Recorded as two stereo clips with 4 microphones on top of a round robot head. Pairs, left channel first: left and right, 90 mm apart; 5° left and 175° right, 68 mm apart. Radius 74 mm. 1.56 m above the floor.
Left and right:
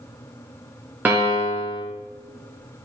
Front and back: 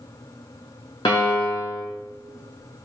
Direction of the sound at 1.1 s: 25° right.